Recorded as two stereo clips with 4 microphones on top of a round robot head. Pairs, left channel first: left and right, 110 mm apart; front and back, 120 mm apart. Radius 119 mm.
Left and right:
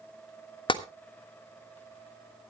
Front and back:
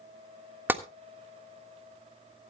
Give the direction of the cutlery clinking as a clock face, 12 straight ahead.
I don't hear cutlery clinking.